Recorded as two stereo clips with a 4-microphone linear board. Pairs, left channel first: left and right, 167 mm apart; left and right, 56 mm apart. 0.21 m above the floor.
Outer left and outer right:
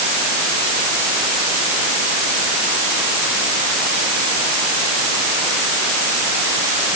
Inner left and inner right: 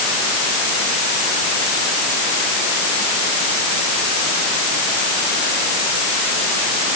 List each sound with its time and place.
Only background noise.